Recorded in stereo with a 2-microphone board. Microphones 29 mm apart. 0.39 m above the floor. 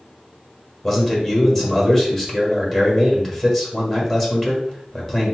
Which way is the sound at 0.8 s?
10° left (ahead or behind).